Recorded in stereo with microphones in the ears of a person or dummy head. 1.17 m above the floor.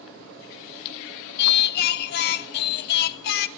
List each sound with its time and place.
1.4 s singing: 60° left (ahead or behind), 1.2 m